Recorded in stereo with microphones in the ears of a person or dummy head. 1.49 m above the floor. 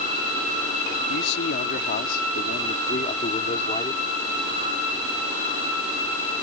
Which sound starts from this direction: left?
A man speaking, at 1.1 s.